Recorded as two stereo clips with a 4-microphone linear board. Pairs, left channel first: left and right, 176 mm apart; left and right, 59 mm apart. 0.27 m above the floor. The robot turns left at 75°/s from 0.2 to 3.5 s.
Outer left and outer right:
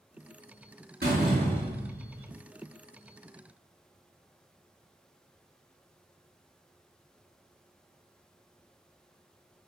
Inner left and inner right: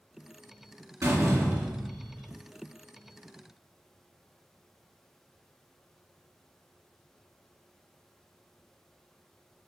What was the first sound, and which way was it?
A door slam, 110° right.